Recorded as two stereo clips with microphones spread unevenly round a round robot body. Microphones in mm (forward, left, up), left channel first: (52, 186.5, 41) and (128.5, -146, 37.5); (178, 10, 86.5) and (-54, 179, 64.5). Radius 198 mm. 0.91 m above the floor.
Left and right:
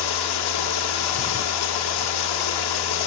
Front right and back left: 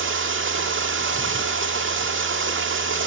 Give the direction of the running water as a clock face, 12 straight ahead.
9 o'clock.